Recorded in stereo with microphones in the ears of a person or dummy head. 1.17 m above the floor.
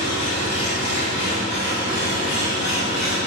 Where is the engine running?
70° left (ahead or behind), 1.4 m.